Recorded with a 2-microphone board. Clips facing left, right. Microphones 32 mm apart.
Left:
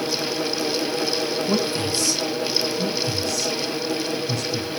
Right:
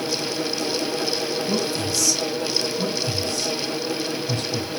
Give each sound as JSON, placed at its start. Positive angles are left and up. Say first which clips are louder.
{"t": 1.5, "sound": "a man speaking", "louder": "left 1 dB", "side_deg": 40, "distance_m": 1.2}
{"t": 2.8, "sound": "a man speaking", "louder": "left 1 dB", "side_deg": -40, "distance_m": 4.0}